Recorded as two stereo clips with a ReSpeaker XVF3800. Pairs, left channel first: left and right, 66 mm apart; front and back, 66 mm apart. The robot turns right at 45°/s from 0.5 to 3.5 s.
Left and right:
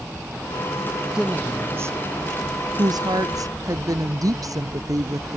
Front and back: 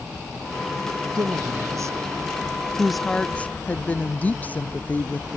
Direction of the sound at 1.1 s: 170° right.